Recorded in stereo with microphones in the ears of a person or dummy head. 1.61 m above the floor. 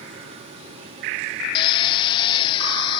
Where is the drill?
25° left (ahead or behind).